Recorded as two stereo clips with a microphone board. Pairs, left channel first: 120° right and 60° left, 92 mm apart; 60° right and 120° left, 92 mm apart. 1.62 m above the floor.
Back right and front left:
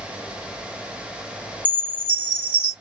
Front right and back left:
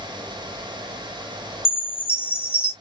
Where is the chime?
50° right, 2 m.